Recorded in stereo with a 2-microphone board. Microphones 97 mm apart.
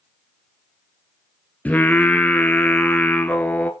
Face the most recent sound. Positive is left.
turn(degrees=15)  # may be behind; listen again after turning